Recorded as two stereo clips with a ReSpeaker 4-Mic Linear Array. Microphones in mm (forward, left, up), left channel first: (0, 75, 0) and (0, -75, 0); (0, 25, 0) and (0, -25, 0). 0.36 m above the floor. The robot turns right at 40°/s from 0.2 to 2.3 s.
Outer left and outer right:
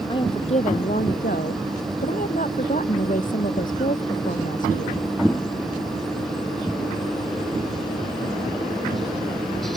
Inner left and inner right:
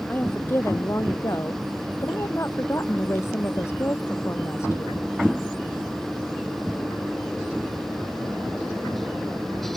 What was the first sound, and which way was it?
A woman speaking, 35° left.